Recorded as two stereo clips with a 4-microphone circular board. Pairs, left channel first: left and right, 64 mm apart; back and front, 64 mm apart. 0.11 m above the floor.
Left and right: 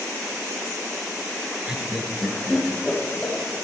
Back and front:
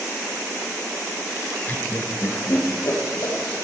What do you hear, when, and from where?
1.7 s laughter: 150° right, 1.3 m; by 3.4 s 170° left, 2.5 m